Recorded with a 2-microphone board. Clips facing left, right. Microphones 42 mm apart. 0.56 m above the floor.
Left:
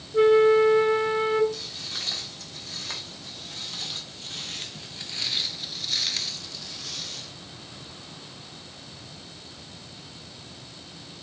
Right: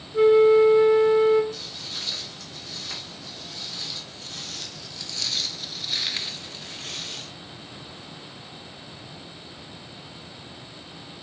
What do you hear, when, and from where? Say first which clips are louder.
0.1 s a flute: right 2 dB; 20° left (ahead or behind), 0.8 m
1.5 s footsteps: even; 50° left (ahead or behind), 2.5 m; by 7.3 s 45° right (ahead or behind), 0.9 m